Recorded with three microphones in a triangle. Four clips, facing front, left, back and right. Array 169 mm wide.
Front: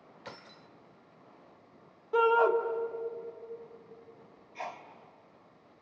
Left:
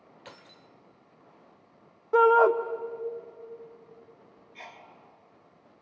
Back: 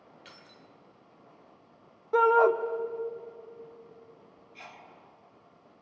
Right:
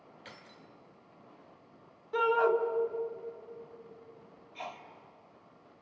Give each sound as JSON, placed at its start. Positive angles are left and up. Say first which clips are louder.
{"t": 0.2, "sound": "keys jangling", "louder": "left 3 dB, front 5 dB", "azimuth_deg": 25, "distance_m": 1.3}
{"t": 2.1, "sound": "a shout", "louder": "left 8 dB, back 3 dB", "azimuth_deg": 110, "distance_m": 1.6}
{"t": 4.5, "sound": "a sneeze", "louder": "right 4 dB, front 9 dB", "azimuth_deg": -20, "distance_m": 2.0}